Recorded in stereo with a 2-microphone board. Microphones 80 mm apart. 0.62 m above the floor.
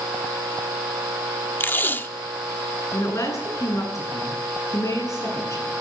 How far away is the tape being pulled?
About 0.9 m.